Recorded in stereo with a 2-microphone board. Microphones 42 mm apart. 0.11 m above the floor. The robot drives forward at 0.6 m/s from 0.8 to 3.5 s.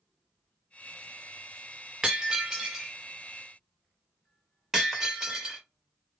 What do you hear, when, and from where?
2.0 s breaking glass: 10° right (ahead or behind), 1.1 m; by 5.6 s 5° right (ahead or behind), 1.9 m